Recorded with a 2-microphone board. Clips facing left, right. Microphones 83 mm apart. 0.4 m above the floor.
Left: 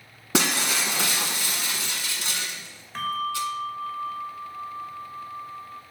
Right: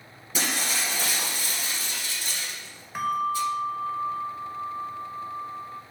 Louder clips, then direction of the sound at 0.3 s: Left 5 dB; 80° left.